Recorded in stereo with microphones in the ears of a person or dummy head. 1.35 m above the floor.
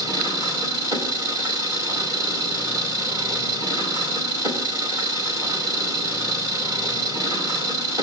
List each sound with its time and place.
0.0 s an engine running: 15° right (ahead or behind), 2 m